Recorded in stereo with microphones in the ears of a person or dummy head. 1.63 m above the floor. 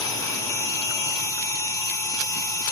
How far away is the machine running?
About 0.9 m.